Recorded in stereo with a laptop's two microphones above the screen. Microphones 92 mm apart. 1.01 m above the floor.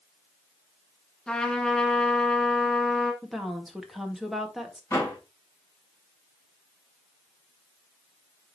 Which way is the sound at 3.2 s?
Centre (ahead or behind).